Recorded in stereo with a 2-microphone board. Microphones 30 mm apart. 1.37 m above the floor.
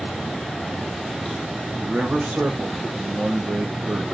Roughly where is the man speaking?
Right.